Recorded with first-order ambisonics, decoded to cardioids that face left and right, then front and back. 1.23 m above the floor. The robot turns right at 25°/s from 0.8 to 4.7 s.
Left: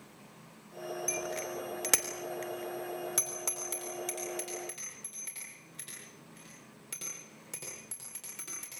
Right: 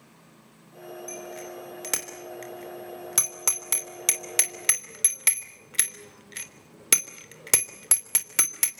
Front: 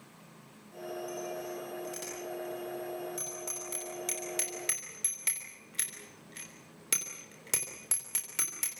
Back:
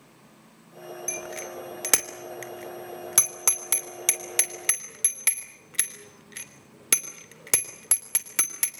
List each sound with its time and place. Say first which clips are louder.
1.1 s a bicycle bell: left 3 dB, back 4 dB; 155° left, 3 m; by 8.7 s 115° right, 3 m